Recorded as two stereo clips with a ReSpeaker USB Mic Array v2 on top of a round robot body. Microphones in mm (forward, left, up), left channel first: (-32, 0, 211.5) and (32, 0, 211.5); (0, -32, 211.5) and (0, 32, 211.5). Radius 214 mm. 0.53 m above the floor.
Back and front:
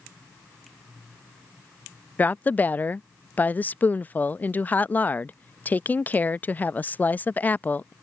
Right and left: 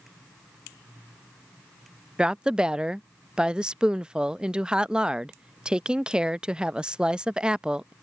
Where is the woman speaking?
150° left.